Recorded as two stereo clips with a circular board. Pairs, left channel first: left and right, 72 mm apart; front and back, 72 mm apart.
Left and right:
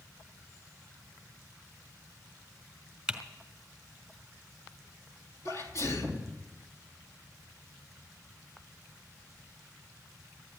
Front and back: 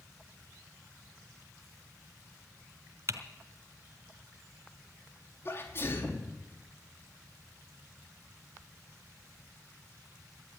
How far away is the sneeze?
About 3.5 m.